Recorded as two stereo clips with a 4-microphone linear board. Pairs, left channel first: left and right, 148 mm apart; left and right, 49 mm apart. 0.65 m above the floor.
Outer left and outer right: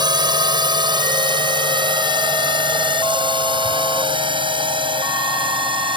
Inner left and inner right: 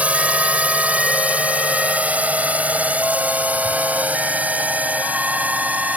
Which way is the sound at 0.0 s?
30° right (ahead or behind).